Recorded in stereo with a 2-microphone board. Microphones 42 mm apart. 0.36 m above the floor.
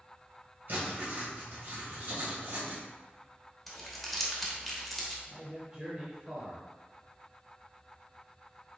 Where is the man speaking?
25° right (ahead or behind), 1.1 m.